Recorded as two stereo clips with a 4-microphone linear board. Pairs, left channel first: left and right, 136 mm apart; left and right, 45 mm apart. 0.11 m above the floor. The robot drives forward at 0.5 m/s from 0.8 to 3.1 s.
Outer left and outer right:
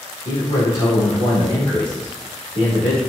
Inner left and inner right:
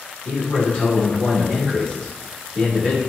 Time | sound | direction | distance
0.2 | a man speaking | 30° left (ahead or behind) | 1.1 m